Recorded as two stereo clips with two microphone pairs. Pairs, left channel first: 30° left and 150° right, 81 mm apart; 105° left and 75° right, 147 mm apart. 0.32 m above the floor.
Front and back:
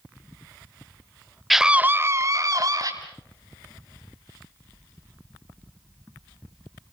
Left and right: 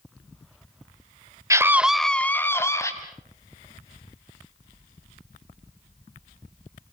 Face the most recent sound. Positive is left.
turn(degrees=170)